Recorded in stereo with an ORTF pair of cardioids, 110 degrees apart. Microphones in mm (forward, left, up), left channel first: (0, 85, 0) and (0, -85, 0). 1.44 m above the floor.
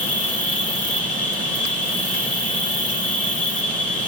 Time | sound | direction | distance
0.0 | an insect | 5° left | 3 m